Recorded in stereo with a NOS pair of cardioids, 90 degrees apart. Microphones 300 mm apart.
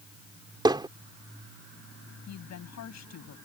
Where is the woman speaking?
65° left.